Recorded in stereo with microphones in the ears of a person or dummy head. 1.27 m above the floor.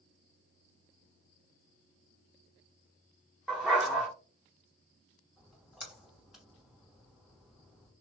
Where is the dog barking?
Centre (ahead or behind), 1.0 m.